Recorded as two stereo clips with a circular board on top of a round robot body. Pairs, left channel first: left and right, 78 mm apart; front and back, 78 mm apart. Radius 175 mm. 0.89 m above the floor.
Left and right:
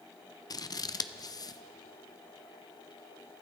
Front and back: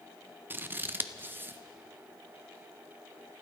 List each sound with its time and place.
0.5 s scissors: 120° left, 0.7 m